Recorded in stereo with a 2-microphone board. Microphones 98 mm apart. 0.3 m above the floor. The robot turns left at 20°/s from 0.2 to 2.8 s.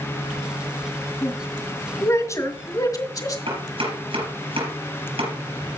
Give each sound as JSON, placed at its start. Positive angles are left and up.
{"t": 1.2, "sound": "a woman speaking", "side_deg": 15, "distance_m": 2.0}
{"t": 3.5, "sound": "chopping", "side_deg": -80, "distance_m": 6.0}